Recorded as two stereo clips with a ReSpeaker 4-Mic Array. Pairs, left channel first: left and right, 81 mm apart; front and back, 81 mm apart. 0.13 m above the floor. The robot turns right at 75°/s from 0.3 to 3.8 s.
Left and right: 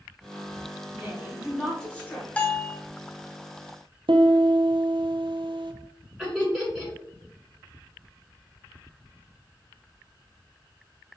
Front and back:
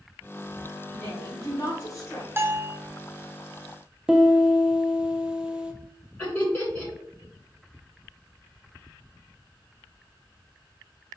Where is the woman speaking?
55° right, 1.4 m; by 2.3 s 45° left, 1.4 m.